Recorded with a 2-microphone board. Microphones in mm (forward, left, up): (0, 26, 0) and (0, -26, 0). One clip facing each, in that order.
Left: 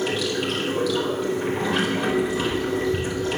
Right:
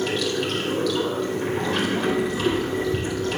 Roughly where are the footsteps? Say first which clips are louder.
Right 1 dB; right.